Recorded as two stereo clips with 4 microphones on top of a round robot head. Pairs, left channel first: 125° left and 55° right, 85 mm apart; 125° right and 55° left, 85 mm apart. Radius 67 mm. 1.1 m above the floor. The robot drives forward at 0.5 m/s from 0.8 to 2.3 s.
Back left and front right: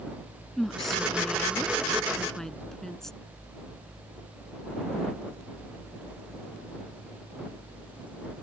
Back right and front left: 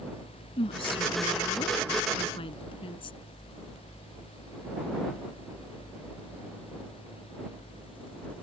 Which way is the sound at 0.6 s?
150° right.